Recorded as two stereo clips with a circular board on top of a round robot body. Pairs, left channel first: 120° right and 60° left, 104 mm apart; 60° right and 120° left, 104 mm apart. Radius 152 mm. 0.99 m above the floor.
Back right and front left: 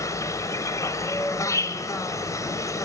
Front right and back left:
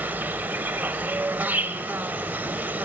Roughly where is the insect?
Behind.